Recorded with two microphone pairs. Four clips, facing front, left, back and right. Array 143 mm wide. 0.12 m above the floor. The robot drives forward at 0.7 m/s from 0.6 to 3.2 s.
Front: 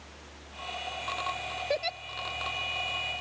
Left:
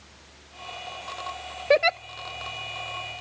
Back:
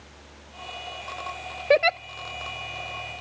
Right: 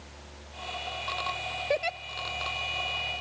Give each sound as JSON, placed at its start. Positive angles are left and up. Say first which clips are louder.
{"t": 1.7, "sound": "a giggle", "louder": "left 9 dB, back 13 dB", "azimuth_deg": 140}